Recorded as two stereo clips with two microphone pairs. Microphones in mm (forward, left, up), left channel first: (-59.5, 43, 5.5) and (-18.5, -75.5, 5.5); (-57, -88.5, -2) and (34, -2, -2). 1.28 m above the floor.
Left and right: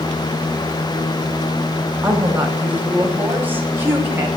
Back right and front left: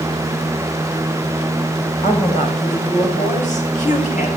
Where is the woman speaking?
150° right, 6 m; by 4.3 s 145° right, 5 m.